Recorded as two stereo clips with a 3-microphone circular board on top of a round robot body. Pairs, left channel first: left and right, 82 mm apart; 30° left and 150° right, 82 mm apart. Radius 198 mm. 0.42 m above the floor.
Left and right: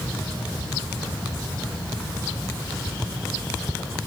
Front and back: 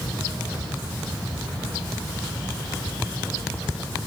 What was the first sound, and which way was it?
Only background noise.